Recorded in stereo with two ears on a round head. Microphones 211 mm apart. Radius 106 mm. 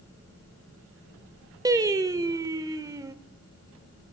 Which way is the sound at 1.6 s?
15° right (ahead or behind).